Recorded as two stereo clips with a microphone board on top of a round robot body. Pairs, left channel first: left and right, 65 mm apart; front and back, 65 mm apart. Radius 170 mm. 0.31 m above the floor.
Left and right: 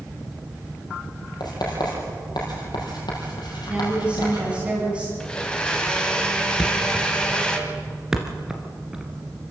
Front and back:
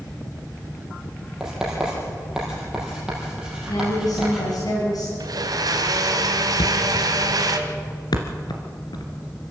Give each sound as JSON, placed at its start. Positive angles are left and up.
{"t": 1.4, "sound": "writing", "azimuth_deg": 95, "distance_m": 5.0}
{"t": 3.7, "sound": "a woman speaking", "azimuth_deg": -15, "distance_m": 3.5}
{"t": 5.2, "sound": "a blender", "azimuth_deg": 165, "distance_m": 1.9}
{"t": 6.6, "sound": "a thud", "azimuth_deg": -10, "distance_m": 2.0}